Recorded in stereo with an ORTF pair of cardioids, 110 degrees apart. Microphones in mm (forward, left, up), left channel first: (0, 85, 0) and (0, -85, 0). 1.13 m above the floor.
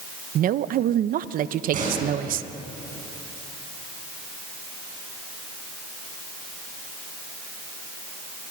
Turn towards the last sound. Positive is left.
turn(degrees=-50)